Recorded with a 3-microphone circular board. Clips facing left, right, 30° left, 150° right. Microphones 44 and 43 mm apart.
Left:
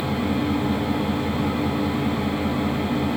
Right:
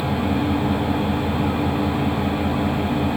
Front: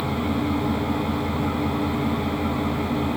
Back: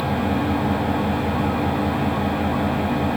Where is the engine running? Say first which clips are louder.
Right 2 dB, back 3 dB; 150° right, 6.5 m.